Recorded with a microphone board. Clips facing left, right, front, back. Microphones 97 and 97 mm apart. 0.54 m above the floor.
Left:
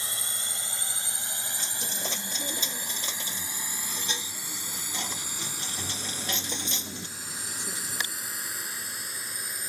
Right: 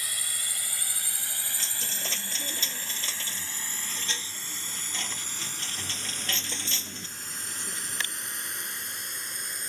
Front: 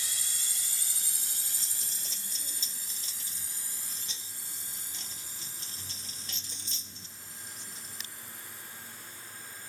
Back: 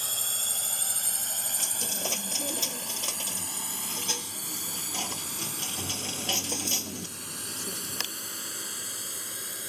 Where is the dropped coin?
160° left.